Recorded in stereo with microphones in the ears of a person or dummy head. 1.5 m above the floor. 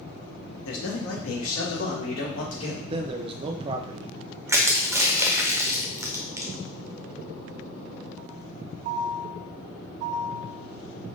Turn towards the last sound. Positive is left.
turn(degrees=-10)  # may be behind; listen again after turning